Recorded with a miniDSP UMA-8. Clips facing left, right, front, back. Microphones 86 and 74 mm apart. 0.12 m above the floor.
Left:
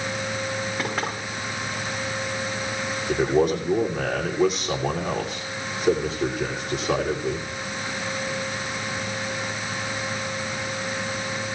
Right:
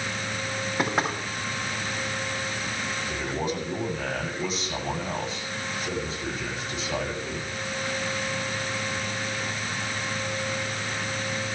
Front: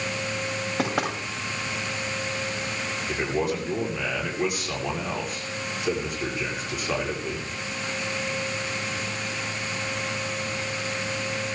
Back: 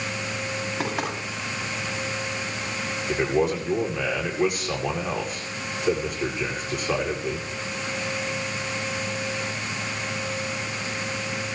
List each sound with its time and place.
0.8 s knocking: 20° right, 8.5 m
3.1 s a man speaking: 90° left, 7.5 m